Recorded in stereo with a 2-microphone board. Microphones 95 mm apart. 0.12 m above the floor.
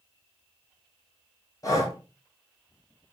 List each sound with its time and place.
1.6 s breathing: 40° left (ahead or behind), 0.8 m